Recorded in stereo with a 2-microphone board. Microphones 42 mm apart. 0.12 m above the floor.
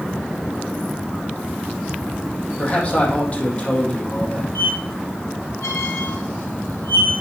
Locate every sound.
2.6 s a man speaking: 35° left (ahead or behind), 4.5 m
4.5 s a squeak: 60° left (ahead or behind), 2.5 m